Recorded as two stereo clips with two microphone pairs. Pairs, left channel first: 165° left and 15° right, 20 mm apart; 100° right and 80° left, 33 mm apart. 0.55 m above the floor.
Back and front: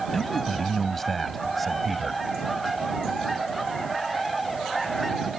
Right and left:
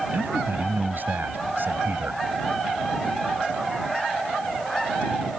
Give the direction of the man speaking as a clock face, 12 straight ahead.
9 o'clock.